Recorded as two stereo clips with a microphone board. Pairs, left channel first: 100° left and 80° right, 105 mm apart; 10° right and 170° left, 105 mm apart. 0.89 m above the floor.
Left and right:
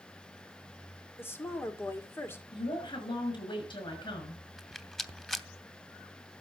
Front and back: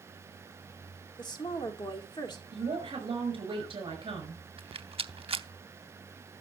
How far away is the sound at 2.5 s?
About 6 m.